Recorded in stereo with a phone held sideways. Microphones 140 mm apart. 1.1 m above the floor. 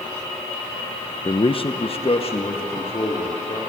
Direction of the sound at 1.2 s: 30° left (ahead or behind).